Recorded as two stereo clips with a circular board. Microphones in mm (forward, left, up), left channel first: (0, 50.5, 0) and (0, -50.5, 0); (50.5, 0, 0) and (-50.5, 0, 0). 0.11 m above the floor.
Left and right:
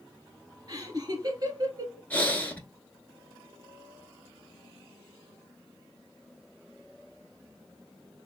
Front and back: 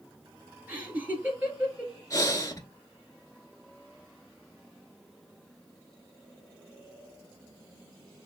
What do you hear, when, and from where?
0.7 s laughter: 115° right, 1.8 m
2.1 s breathing: 25° left, 0.8 m